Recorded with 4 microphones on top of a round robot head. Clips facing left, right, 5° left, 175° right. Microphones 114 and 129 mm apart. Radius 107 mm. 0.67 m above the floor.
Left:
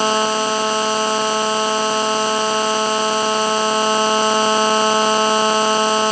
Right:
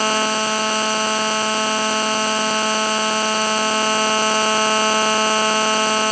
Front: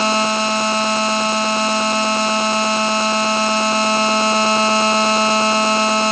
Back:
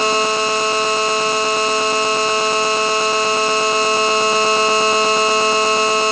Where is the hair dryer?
I don't hear a hair dryer.